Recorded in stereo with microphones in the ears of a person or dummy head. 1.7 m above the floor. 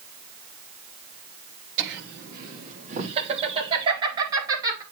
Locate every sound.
1.8 s laughter: 65° right (ahead or behind), 1.8 m; by 4.8 s 15° right (ahead or behind), 4 m